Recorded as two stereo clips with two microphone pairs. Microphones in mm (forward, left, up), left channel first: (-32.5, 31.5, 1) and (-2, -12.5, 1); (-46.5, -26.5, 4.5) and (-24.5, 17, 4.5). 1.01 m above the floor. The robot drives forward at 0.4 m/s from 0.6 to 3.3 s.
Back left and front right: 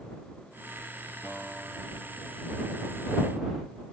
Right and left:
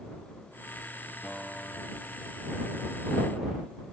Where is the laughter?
I don't hear laughter.